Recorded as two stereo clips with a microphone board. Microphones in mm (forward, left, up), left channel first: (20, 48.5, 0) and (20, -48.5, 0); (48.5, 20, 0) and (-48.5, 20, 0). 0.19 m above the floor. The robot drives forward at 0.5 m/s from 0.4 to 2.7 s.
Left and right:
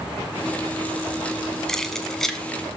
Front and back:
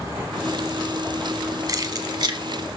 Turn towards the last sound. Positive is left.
turn(degrees=175)